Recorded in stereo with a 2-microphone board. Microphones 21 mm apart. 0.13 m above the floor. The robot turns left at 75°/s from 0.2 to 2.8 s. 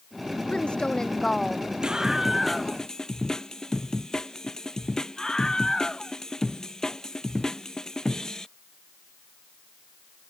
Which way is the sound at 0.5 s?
75° left.